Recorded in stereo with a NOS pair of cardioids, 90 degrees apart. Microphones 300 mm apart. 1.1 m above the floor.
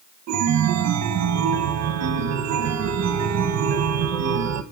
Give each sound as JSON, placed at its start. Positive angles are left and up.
{"t": 0.3, "sound": "a chime", "azimuth_deg": -65, "distance_m": 0.9}